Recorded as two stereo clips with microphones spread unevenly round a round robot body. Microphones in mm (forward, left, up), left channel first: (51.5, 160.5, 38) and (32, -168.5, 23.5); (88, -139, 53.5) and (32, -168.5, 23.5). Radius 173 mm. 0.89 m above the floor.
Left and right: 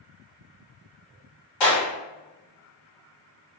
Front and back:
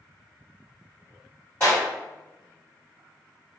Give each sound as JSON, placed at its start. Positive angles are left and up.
{"t": 1.6, "sound": "a clap", "azimuth_deg": 110, "distance_m": 1.7}